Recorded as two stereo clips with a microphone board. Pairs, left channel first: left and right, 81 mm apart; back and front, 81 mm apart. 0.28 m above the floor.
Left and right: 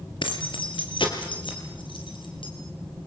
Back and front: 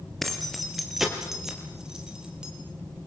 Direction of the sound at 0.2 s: 95° left.